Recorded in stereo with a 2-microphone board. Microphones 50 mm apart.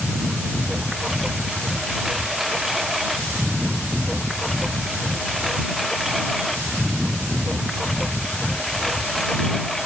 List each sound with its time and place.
0.0 s a lawn mower: 5° right (ahead or behind); by 9.9 s 5° left (ahead or behind)